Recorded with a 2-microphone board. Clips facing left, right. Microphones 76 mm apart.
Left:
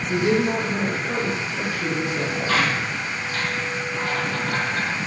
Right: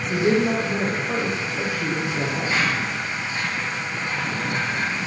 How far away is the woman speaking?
About 5 m.